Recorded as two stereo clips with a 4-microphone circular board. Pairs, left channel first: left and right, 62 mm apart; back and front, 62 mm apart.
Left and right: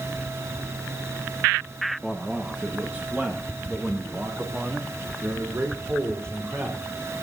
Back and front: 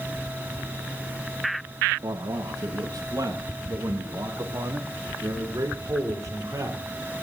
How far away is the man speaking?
About 1.2 m.